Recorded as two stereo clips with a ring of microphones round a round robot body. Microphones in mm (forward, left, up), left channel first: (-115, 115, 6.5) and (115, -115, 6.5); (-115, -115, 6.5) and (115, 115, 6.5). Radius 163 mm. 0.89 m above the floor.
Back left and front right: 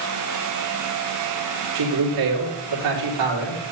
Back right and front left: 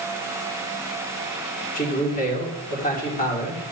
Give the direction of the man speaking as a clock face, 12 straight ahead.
2 o'clock.